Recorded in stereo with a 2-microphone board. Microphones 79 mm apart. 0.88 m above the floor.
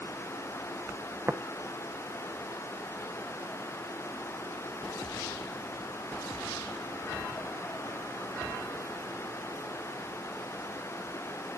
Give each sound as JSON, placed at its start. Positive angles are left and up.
{"t": 1.3, "sound": "tapping", "side_deg": -25, "distance_m": 0.7}